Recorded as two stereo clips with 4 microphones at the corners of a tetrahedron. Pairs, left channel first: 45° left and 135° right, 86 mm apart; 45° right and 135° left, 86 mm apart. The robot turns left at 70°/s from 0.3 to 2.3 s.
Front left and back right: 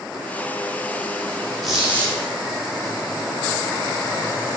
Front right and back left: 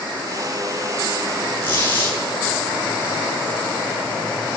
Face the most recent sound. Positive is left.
turn(degrees=-90)